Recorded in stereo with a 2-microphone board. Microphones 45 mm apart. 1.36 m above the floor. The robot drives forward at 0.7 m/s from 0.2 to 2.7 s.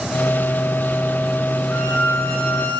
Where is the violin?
85° left, 8.5 m; by 2.8 s 90° left, 8.5 m.